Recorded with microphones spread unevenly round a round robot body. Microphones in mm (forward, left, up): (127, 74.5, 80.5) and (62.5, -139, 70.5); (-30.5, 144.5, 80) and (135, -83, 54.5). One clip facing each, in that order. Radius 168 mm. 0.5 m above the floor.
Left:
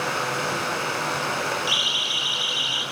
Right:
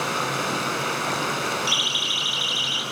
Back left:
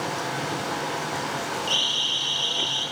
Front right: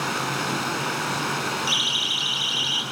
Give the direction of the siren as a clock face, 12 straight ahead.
3 o'clock.